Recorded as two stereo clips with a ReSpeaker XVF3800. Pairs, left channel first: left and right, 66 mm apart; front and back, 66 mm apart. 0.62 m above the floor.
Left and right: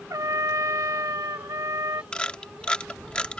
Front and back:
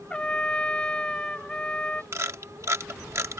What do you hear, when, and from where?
0.1 s a trumpet: 70° right
2.1 s a camera shutter: 160° left